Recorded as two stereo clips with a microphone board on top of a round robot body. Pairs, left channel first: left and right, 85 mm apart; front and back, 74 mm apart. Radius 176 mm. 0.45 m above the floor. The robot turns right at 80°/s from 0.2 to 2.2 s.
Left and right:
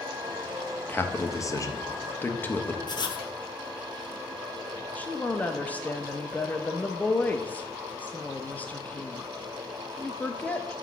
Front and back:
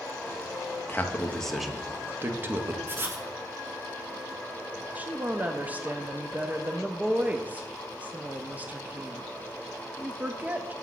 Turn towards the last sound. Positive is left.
turn(degrees=140)